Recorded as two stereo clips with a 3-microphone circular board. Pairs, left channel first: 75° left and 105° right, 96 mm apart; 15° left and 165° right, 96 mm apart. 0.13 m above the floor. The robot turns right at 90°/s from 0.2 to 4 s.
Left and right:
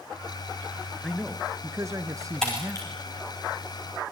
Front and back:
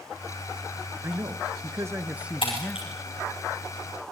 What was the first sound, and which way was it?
A man speaking, 155° left.